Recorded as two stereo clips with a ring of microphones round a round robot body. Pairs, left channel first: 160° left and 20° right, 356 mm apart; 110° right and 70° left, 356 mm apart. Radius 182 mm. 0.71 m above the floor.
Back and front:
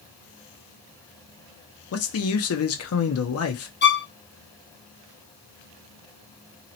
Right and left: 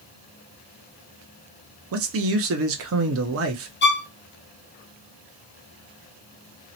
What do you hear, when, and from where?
1.9 s a man speaking: 115° left, 0.8 m
3.8 s a violin: 155° right, 0.7 m